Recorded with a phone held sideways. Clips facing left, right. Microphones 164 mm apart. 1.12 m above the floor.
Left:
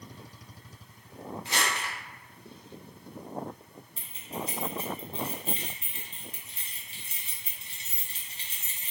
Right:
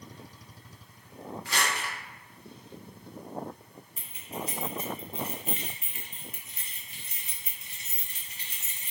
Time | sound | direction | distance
1.4 | crumpling | 25° left (ahead or behind) | 1.1 m
4.0 | keys jangling | 35° left (ahead or behind) | 0.9 m